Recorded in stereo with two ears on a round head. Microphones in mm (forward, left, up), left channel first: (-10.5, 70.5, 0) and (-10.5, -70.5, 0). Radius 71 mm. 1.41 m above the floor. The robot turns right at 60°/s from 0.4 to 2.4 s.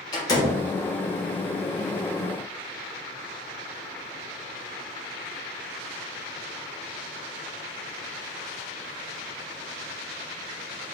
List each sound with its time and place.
0.1 s a door slam: 25° left (ahead or behind), 1.9 m; by 0.6 s 10° left (ahead or behind), 1.9 m